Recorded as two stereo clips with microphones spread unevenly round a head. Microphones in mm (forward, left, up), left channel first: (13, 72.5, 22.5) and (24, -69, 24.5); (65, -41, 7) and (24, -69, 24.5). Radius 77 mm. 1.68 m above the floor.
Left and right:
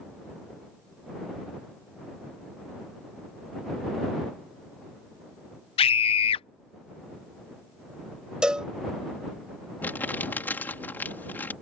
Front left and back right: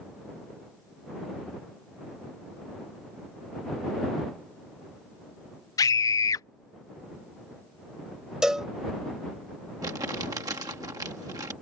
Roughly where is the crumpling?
Behind.